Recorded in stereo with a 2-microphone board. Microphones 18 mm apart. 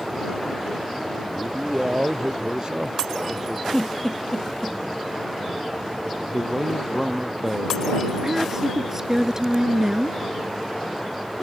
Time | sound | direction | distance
1.3 | a man speaking | 45° right (ahead or behind) | ?
3.7 | a giggle | 20° left (ahead or behind) | ?
6.3 | a man speaking | centre (ahead or behind) | ?
8.2 | a woman speaking | 25° right (ahead or behind) | ?